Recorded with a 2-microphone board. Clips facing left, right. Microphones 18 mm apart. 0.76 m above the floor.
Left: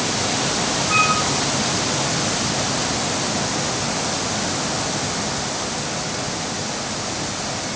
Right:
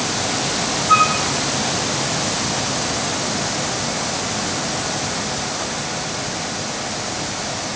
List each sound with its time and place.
0.9 s a flute: 20° right (ahead or behind), 5.5 m